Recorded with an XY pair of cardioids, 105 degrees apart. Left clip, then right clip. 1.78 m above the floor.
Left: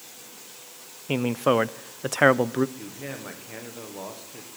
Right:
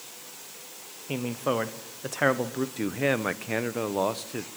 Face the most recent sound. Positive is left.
turn(degrees=-65)